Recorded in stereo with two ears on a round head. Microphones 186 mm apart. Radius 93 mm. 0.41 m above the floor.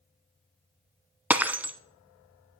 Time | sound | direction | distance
1.3 | breaking glass | 10° right (ahead or behind) | 0.5 m